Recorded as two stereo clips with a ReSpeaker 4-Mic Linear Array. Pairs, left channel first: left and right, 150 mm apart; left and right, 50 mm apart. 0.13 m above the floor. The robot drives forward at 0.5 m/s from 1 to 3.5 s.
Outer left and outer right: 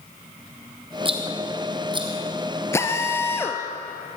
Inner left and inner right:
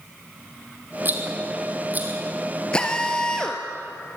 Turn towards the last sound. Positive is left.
turn(degrees=15)  # may be behind; listen again after turning